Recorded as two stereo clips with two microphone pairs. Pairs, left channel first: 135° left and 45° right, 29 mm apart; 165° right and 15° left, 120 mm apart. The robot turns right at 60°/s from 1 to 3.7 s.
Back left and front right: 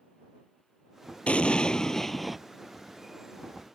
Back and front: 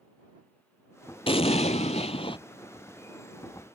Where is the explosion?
165° left; by 2.4 s 125° right.